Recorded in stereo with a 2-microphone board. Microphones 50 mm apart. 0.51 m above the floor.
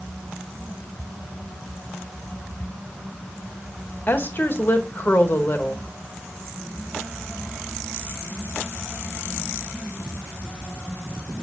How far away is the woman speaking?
About 1.7 m.